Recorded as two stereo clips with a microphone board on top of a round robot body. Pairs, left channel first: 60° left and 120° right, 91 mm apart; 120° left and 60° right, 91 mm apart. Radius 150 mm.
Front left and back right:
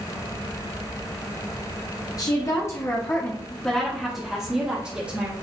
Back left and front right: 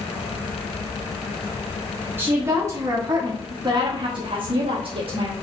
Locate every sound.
2.2 s a woman speaking: 10° left, 1.7 m; by 5.3 s 50° right, 2 m